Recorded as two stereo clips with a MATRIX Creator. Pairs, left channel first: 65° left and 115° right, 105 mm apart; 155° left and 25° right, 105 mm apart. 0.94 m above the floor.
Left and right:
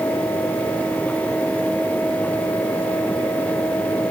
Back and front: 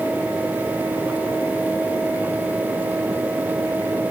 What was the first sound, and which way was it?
Only background noise.